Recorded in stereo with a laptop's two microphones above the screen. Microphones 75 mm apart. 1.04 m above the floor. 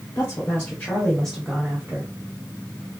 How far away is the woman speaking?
About 1.0 m.